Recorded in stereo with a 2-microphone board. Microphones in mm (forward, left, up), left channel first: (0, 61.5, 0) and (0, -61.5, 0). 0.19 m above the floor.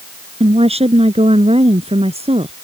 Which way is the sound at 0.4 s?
55° right (ahead or behind).